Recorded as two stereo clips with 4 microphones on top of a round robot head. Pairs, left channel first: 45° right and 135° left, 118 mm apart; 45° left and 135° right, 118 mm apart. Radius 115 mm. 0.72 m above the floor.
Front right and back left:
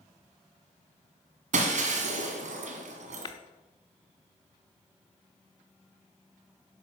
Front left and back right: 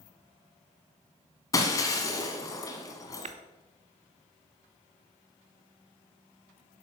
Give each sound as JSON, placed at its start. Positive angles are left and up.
{"t": 1.5, "sound": "breaking glass", "azimuth_deg": 105, "distance_m": 1.2}
{"t": 3.2, "sound": "tapping", "azimuth_deg": -100, "distance_m": 0.6}